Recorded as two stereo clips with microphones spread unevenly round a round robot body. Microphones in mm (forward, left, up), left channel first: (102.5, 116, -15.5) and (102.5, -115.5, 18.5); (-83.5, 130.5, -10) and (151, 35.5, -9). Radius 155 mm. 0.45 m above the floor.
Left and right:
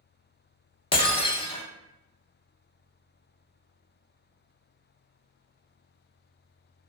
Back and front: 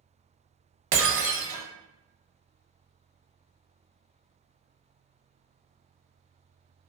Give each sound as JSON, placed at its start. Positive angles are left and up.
{"t": 0.9, "sound": "breaking glass", "azimuth_deg": 20, "distance_m": 0.7}